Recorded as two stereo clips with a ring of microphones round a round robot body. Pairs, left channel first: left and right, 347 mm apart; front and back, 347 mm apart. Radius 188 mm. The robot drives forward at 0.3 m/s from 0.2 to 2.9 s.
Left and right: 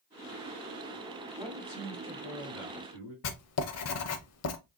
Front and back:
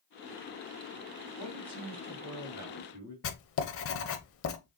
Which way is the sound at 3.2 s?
50° left.